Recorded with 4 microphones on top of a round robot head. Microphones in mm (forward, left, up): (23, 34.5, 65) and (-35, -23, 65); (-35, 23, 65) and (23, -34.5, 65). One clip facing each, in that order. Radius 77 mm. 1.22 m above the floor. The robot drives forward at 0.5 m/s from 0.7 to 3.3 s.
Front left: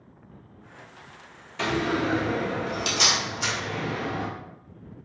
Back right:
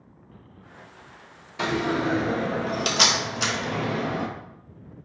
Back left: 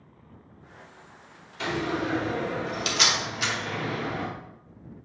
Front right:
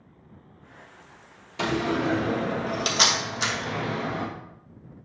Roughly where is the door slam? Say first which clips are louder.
Back right 1 dB, front right 3 dB; ahead right.